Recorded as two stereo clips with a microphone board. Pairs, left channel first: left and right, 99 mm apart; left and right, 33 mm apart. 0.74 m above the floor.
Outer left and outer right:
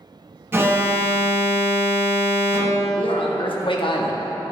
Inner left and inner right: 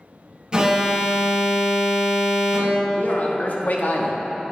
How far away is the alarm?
About 0.9 m.